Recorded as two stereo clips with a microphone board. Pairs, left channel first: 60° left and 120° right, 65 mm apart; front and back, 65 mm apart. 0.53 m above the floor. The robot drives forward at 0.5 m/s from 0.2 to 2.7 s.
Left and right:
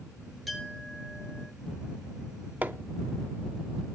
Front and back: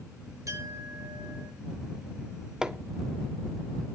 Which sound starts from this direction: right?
Hammering, at 2.6 s.